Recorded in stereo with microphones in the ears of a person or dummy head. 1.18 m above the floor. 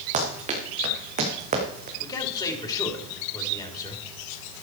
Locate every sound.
0.1 s running footsteps: 40° right (ahead or behind), 5.5 m
2.0 s a man speaking: 20° left (ahead or behind), 3 m